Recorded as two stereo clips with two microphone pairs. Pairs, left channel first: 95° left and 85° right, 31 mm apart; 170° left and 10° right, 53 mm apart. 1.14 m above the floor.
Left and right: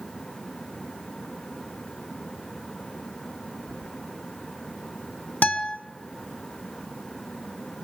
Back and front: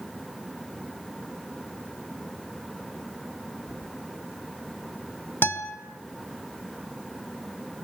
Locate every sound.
3.7 s keys jangling: 130° left, 8.5 m
5.4 s a guitar: 125° left, 3 m